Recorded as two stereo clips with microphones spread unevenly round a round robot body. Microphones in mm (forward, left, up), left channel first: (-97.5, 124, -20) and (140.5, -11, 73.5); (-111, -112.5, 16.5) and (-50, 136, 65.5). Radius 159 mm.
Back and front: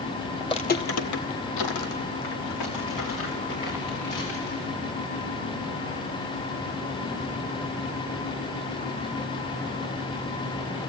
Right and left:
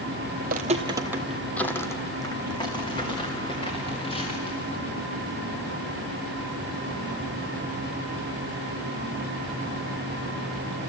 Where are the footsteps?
55° left, 1.3 m; by 4.8 s 175° right, 6.5 m.